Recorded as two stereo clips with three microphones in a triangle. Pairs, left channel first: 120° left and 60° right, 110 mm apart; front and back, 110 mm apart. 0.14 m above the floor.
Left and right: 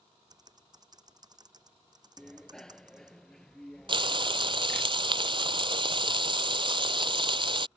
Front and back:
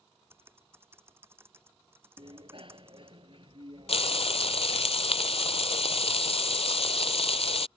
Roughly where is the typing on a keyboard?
Right.